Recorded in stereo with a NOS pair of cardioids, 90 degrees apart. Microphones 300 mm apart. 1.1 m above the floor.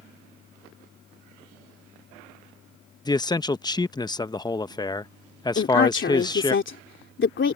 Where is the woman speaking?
40° left.